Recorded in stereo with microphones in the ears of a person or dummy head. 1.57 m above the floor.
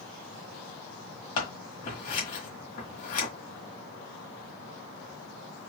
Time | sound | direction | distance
1.4 | scissors | 50° left (ahead or behind) | 1.7 m